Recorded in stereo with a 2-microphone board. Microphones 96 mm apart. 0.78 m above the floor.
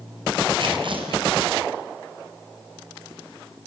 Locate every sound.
0.6 s tearing paper: 55° right (ahead or behind), 5 m